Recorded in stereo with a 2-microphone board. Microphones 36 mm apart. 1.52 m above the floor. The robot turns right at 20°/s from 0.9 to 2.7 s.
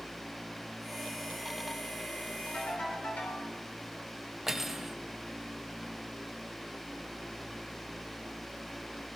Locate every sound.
2.5 s a ringtone: 50° left (ahead or behind), 4 m; by 3.5 s 45° left (ahead or behind), 4 m
4.5 s cutlery clinking: 10° right (ahead or behind), 0.7 m